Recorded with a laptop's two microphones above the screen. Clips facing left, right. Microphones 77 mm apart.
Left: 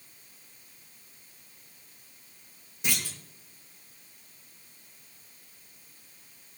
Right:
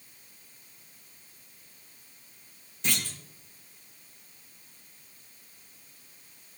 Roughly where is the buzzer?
I don't hear a buzzer.